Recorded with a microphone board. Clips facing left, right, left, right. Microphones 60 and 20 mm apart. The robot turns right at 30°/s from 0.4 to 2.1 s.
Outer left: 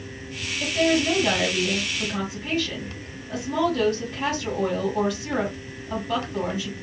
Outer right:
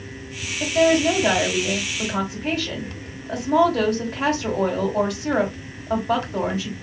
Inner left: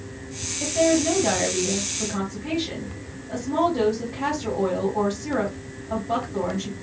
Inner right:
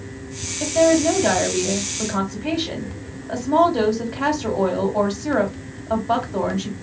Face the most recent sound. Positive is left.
turn(degrees=-105)